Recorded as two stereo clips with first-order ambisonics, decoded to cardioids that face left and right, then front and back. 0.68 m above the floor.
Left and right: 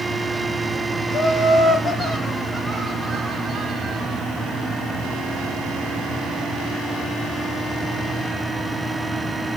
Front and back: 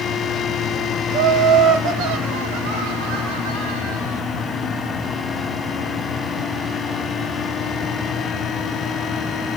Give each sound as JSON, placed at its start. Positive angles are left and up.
{"t": 1.1, "sound": "laughter", "azimuth_deg": 145, "distance_m": 3.0}